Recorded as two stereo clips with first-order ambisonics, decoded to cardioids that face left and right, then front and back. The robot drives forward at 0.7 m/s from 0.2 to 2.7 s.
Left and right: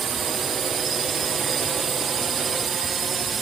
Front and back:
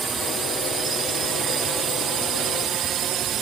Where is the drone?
115° right; by 3.4 s 145° right.